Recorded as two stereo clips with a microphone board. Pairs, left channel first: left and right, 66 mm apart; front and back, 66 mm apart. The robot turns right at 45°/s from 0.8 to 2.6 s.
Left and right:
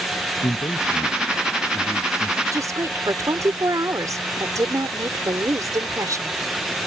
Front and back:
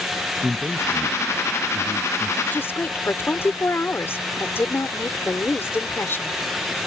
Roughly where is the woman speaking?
Ahead right.